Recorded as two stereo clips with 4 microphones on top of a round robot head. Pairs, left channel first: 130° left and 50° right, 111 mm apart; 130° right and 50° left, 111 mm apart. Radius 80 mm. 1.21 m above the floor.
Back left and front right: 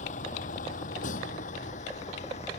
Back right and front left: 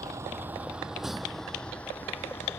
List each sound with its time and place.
0.0 s a vehicle: 115° left; by 2.6 s 160° left